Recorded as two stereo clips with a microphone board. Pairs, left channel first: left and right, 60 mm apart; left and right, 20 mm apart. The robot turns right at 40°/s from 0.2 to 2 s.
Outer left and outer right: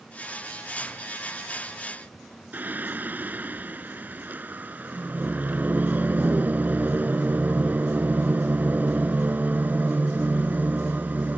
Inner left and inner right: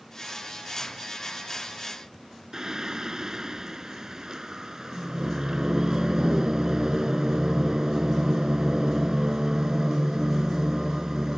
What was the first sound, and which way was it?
Singing, 30° right (ahead or behind).